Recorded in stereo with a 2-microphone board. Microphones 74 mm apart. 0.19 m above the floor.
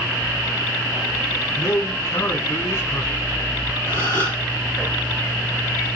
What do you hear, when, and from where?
1.6 s a man speaking: 35° left (ahead or behind), 1.3 m
3.9 s a gasp: 30° left (ahead or behind), 1.9 m